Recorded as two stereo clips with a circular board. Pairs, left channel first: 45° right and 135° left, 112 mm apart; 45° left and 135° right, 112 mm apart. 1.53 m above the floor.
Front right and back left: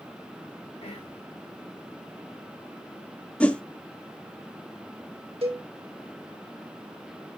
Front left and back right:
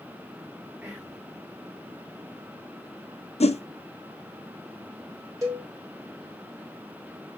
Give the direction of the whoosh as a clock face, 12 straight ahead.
11 o'clock.